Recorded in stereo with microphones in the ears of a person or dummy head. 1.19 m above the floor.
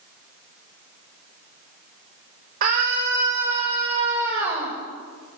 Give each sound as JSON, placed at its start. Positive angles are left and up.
{"t": 2.6, "sound": "a scream", "side_deg": -45, "distance_m": 5.0}